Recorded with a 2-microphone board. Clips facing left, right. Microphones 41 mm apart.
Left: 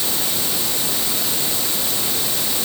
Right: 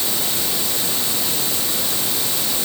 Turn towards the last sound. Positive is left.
No sound to turn to.